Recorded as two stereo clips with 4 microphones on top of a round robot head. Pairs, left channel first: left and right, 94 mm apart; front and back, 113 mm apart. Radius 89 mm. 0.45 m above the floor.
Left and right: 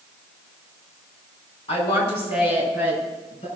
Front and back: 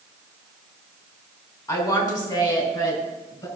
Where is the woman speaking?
55° left, 4 m; by 3.5 s 50° left, 5.5 m.